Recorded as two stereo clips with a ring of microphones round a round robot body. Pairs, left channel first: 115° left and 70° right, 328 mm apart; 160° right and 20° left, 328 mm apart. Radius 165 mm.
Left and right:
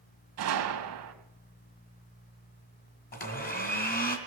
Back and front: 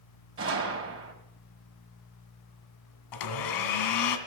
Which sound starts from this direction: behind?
A blender, at 3.1 s.